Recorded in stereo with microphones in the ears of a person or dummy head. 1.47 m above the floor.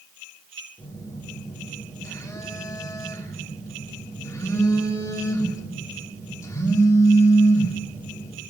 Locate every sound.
0.8 s a phone buzzing: 15° left (ahead or behind), 3 m